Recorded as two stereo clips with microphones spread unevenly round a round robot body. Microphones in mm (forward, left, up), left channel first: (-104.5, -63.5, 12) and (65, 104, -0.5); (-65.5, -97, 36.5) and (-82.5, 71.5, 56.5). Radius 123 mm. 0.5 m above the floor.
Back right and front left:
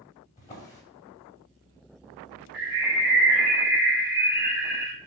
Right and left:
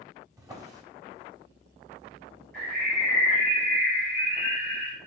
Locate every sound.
0.4 s a drawer: 165° left, 0.7 m
2.5 s a bird: straight ahead, 0.6 m